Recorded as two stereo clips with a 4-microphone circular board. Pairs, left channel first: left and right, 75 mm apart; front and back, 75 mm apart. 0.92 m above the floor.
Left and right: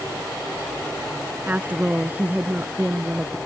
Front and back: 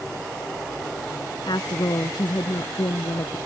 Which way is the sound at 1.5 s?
20° right.